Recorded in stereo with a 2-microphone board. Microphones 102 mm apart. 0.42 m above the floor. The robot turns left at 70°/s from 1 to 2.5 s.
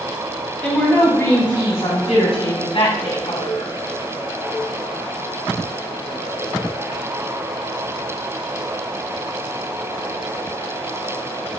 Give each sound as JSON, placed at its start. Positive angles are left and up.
{"t": 0.6, "sound": "a woman speaking", "azimuth_deg": 170, "distance_m": 3.5}